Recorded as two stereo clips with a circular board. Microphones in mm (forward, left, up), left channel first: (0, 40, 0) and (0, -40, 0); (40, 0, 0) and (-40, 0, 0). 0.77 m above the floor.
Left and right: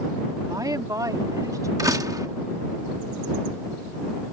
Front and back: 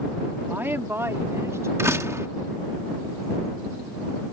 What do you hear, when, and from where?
0.5 s a woman speaking: 120° right; by 1.7 s 130° right
1.8 s a door slam: 130° right